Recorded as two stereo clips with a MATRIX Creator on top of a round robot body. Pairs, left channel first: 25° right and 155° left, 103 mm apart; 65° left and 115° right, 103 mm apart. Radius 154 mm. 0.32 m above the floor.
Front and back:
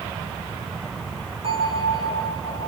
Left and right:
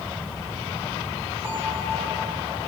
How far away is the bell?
About 3.5 m.